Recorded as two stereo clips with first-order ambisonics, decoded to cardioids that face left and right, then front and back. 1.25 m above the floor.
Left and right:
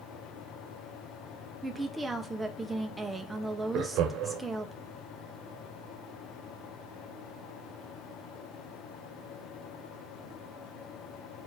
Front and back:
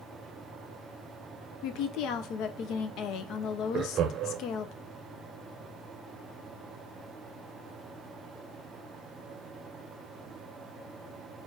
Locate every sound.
1.6 s a woman speaking: 10° right, 0.6 m
3.7 s laughter: 125° right, 0.7 m